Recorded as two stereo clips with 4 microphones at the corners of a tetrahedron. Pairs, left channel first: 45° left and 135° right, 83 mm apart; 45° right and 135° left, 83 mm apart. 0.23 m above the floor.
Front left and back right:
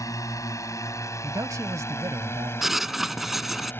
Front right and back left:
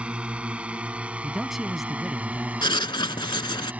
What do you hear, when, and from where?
0.0 s a drone: 65° left; by 3.8 s 80° left
1.2 s a man speaking: 140° right
2.6 s writing: 50° right